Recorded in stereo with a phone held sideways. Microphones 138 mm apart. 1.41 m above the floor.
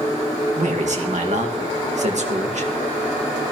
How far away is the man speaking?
About 2 m.